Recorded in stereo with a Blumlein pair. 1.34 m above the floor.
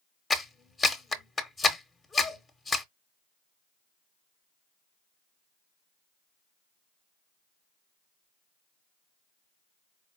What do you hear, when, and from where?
0.3 s a clap: 10° left, 0.9 m